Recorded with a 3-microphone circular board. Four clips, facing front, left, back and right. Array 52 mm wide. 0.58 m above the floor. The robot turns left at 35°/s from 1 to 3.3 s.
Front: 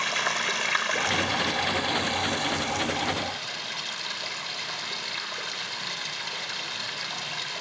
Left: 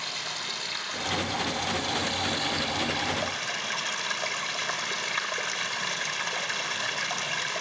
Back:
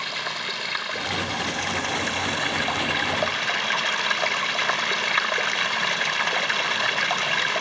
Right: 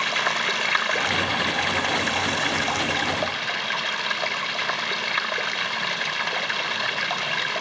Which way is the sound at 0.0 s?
75° right.